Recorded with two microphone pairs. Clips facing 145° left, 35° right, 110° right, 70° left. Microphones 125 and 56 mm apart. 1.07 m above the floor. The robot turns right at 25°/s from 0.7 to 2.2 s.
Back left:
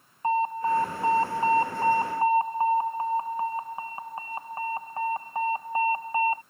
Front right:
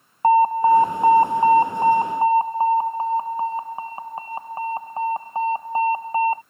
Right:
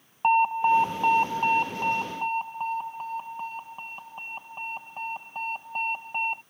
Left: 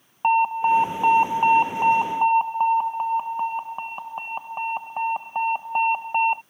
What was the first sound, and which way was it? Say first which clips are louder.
An alarm: front right 10 dB, left 2 dB; 15° right.